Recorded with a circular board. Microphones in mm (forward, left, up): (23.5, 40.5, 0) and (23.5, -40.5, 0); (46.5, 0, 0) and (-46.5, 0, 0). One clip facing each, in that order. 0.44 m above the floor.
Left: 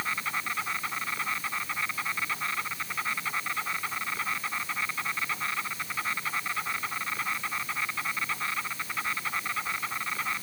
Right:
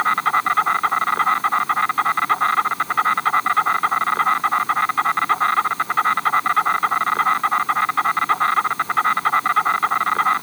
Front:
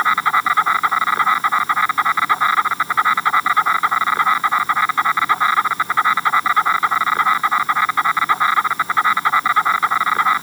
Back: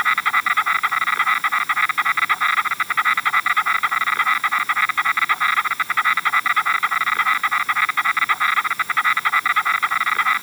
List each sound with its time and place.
0.0 s an insect: 65° right